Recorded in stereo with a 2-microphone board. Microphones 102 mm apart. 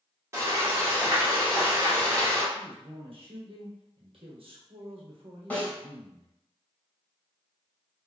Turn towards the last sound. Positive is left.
turn(degrees=15)  # may be behind; listen again after turning